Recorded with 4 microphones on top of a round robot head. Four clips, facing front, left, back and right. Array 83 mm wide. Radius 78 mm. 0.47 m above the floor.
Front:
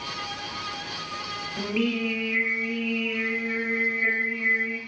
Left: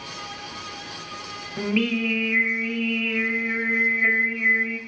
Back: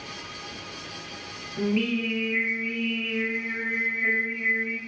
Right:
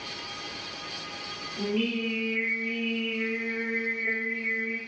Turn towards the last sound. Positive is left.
turn(degrees=80)